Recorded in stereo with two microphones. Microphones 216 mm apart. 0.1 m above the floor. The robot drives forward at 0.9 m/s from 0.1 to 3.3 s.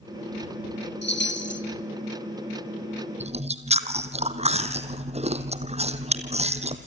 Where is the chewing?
30° right (ahead or behind), 1.4 m.